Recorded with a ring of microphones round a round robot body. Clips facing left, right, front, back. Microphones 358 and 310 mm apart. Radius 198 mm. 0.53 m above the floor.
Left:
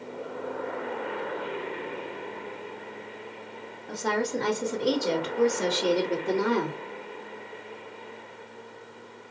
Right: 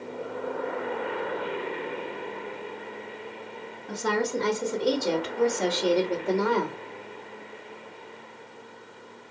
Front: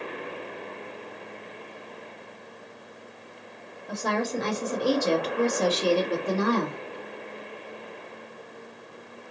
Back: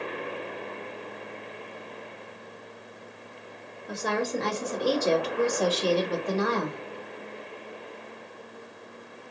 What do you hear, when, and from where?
3.9 s a woman speaking: 115° right, 1.1 m; by 6.8 s 40° left, 1.5 m